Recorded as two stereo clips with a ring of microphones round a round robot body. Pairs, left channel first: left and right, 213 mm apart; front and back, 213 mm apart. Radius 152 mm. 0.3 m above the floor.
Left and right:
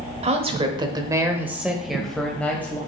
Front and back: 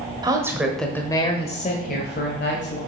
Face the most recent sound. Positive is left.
turn(degrees=10)